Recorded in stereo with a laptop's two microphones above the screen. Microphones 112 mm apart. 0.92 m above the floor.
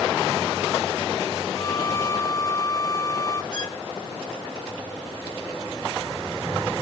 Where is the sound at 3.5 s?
40° left (ahead or behind).